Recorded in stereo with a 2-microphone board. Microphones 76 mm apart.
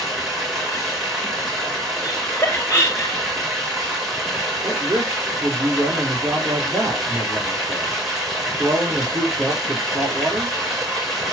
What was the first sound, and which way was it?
Running water, centre (ahead or behind).